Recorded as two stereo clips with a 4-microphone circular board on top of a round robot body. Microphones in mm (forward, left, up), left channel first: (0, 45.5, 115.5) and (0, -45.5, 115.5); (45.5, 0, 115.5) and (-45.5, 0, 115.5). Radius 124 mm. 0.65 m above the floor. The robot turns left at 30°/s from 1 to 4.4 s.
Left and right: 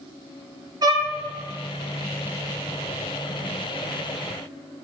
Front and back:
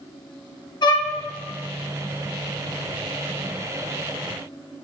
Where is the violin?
40° right, 0.8 m; by 1.1 s 45° right, 0.8 m.